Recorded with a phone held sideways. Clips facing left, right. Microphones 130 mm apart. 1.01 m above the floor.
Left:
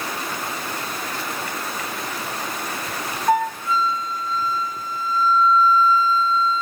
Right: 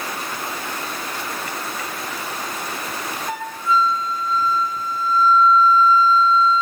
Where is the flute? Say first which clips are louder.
Left 4 dB; 50° left (ahead or behind), 3 m.